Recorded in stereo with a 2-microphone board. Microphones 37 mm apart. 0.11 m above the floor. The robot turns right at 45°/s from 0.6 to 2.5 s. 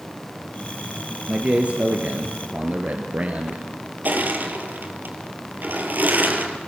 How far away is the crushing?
About 3 m.